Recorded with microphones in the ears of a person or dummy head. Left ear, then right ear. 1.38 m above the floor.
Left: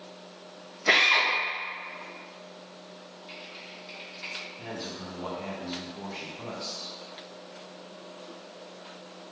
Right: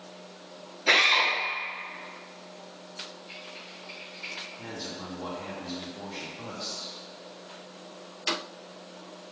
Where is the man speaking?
5° left (ahead or behind), 0.6 m.